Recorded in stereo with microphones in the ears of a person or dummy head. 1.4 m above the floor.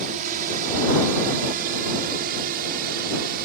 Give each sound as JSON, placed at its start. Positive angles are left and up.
{"t": 0.0, "sound": "a drone", "side_deg": -45}